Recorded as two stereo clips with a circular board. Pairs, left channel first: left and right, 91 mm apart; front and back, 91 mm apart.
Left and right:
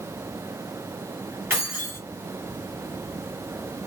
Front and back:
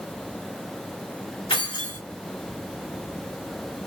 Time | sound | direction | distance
1.5 | keys jangling | 25° right | 1.6 m